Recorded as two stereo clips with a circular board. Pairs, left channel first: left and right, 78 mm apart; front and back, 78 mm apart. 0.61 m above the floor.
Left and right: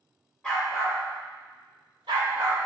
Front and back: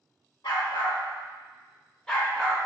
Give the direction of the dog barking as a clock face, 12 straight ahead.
12 o'clock.